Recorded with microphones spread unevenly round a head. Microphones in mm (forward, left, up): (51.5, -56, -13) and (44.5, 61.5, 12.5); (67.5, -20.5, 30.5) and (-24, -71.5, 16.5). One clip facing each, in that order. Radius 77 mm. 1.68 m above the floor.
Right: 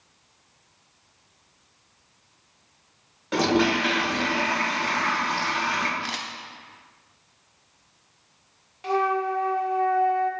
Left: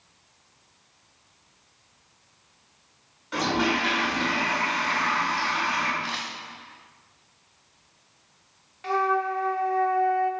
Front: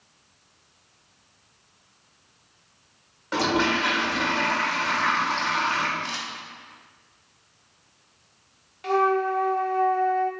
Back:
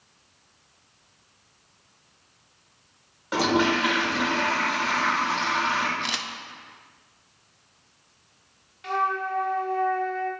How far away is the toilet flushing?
About 1.9 m.